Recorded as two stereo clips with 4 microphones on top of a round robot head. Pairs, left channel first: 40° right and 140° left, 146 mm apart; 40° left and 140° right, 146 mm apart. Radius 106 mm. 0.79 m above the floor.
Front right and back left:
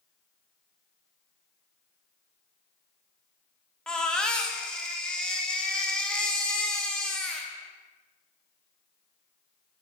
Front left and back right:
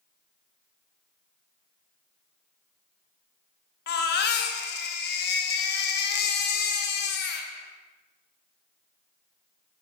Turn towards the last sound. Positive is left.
turn(degrees=45)